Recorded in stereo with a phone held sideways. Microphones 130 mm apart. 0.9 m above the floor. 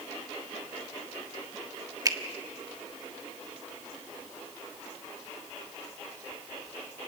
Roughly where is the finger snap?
Right.